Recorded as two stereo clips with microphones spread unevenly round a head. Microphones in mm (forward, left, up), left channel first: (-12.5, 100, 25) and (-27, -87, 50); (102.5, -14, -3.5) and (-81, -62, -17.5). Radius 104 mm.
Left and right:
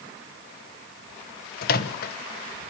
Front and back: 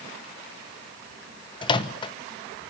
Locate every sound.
1.6 s a microwave: 60° left, 0.9 m